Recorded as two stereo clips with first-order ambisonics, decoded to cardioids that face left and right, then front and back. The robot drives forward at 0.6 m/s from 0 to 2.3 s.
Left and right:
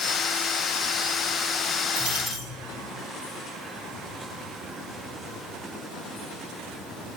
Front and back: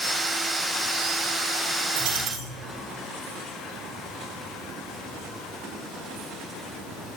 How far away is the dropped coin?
About 9 m.